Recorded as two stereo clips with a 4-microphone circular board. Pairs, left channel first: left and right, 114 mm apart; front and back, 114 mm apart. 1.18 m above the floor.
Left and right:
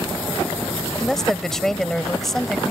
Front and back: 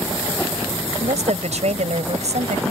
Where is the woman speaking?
175° left; by 2.7 s straight behind.